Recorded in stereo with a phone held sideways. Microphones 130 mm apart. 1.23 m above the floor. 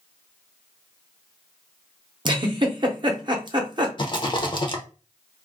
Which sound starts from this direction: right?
A giggle, at 2.2 s.